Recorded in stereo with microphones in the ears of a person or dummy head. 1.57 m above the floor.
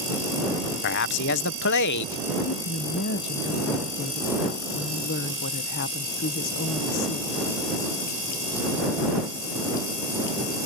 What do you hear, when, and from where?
0.8 s a man speaking: 65° left (ahead or behind)
2.5 s a woman speaking: 60° left (ahead or behind)